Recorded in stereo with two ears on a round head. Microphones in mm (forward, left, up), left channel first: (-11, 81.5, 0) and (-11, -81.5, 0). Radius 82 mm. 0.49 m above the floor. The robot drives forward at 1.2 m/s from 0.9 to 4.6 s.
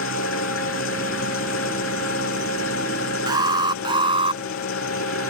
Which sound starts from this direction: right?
An alarm, at 3.3 s.